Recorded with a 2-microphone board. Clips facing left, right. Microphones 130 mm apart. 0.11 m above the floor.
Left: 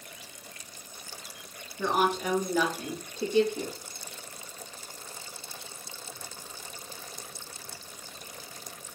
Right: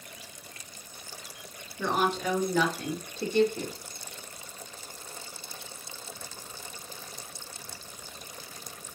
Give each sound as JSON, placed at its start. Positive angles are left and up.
{"t": 1.8, "sound": "a woman speaking", "side_deg": 10, "distance_m": 1.2}